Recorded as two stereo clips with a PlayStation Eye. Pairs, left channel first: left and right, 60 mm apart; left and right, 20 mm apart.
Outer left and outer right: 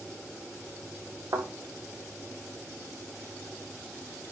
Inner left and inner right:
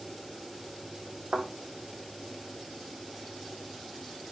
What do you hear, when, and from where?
1.3 s a thud: 60° right (ahead or behind), 4.5 m